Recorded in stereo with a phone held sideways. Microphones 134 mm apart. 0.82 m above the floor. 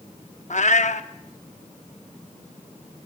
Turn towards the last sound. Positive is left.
turn(degrees=60)  # may be behind; listen again after turning